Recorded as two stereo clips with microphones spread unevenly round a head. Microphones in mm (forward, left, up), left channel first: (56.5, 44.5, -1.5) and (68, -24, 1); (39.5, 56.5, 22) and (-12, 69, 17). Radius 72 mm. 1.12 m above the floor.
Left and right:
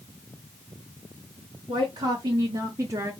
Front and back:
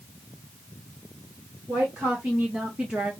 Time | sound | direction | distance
1.7 | a woman speaking | 125° right | 1.4 m